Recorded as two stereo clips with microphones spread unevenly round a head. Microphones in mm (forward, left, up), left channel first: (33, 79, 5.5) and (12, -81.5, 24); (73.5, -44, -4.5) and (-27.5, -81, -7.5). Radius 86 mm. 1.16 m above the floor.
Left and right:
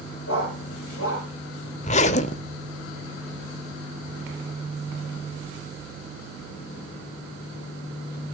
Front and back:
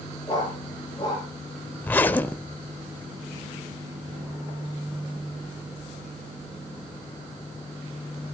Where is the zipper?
75° left, 0.9 m.